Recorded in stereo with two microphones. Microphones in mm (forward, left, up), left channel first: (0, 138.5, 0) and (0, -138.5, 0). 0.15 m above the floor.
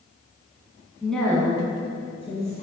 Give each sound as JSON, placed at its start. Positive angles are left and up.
{"t": 1.0, "sound": "a woman speaking", "side_deg": 0, "distance_m": 1.5}